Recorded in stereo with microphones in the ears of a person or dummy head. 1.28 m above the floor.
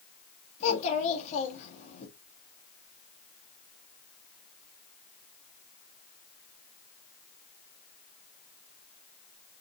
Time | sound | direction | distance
0.6 | a child speaking | 35° left (ahead or behind) | 1.5 m